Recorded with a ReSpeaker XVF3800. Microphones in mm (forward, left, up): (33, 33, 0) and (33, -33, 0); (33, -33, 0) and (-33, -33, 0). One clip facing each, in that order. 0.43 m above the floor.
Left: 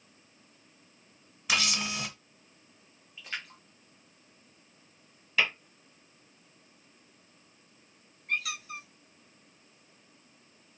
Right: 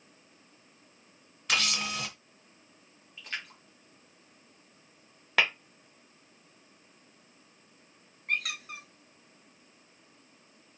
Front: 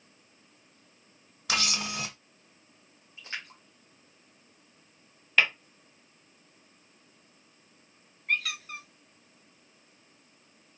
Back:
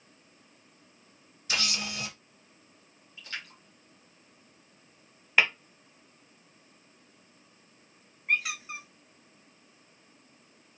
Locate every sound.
1.5 s a camera shutter: 5° left, 0.9 m
3.2 s a splash: straight ahead, 1.2 m
5.4 s tapping: 105° right, 1.1 m
8.3 s a squeak: 105° right, 0.6 m